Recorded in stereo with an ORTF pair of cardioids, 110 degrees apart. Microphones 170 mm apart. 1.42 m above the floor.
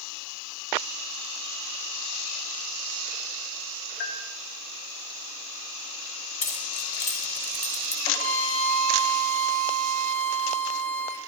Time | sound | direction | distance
4.0 | a bell | 50° left | 5 m
6.4 | keys jangling | 45° left | 4.5 m
8.1 | a violin | 40° left | 3.5 m